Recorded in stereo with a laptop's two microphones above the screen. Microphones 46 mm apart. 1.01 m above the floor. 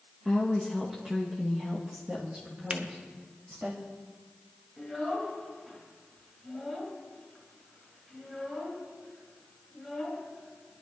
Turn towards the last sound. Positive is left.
turn(degrees=-10)  # may be behind; listen again after turning